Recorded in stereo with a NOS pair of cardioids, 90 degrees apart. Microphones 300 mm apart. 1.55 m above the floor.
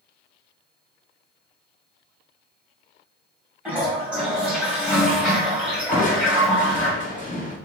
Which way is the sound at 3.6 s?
5° right.